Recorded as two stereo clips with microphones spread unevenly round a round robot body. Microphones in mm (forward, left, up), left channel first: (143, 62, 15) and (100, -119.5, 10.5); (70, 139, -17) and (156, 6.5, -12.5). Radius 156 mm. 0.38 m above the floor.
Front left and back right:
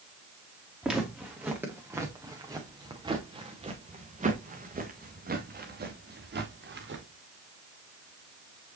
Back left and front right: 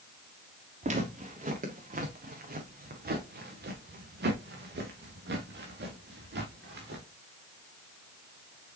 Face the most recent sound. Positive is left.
turn(degrees=-85)